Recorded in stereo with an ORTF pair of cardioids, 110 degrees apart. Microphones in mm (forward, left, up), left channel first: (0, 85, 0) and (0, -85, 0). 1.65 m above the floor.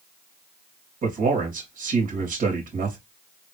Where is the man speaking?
55° right, 2.5 m.